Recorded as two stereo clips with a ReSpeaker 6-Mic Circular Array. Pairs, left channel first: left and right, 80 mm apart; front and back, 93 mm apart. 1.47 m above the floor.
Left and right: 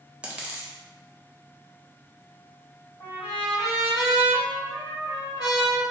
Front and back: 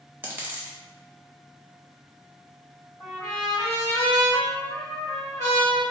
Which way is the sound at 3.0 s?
65° left.